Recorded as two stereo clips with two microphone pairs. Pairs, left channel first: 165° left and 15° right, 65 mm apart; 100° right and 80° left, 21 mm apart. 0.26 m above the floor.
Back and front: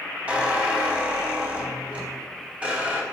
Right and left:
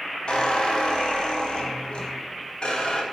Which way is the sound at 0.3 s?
80° right.